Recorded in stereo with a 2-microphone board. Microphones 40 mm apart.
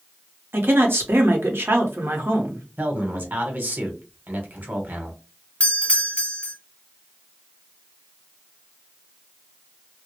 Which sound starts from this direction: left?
A doorbell, at 5.6 s.